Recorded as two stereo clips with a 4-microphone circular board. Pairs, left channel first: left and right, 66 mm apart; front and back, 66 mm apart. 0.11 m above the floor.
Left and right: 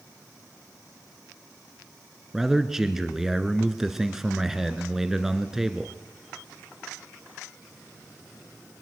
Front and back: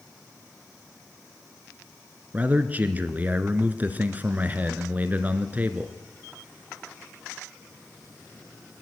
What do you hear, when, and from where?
2.3 s a man speaking: 165° right, 1.5 m